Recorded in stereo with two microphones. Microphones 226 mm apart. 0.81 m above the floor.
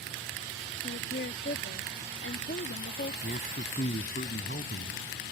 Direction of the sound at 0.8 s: 55° left (ahead or behind).